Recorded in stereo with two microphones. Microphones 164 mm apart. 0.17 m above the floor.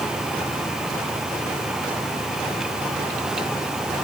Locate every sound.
Only background noise.